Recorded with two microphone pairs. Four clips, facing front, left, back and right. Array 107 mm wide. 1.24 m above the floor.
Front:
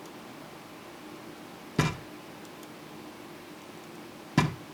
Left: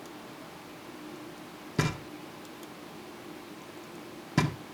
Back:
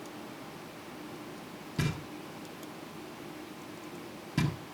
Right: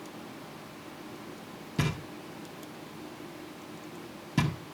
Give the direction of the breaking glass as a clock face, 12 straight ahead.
I don't hear breaking glass.